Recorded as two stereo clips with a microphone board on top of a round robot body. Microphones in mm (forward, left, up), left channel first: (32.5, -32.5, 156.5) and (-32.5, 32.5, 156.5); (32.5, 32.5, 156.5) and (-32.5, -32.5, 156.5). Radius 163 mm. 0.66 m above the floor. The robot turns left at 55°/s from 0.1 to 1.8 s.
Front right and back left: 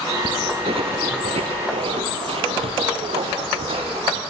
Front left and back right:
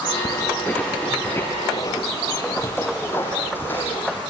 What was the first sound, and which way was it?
Footsteps, 105° left.